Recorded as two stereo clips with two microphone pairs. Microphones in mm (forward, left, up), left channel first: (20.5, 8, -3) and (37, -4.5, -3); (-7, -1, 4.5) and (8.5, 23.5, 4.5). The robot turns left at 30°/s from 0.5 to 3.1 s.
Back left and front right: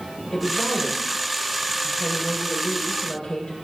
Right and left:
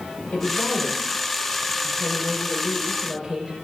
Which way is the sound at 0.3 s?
155° right.